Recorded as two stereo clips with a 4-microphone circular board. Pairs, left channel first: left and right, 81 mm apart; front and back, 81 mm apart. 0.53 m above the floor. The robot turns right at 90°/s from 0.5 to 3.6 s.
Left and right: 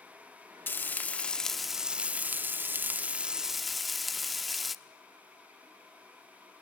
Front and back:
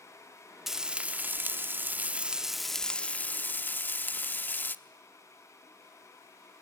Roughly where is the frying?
Left.